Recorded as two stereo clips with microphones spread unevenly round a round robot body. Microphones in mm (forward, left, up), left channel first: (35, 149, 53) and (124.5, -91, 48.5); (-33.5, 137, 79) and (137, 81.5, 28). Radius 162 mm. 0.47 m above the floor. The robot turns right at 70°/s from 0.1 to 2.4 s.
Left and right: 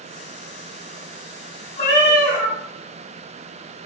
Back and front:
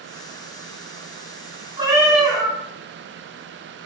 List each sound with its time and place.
1.8 s a cat meowing: 45° left, 1.7 m; by 2.6 s 90° left, 1.7 m